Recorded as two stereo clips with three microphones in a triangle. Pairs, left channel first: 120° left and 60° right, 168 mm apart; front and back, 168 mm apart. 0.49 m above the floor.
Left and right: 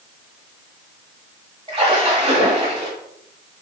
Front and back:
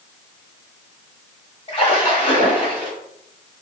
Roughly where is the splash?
Ahead right.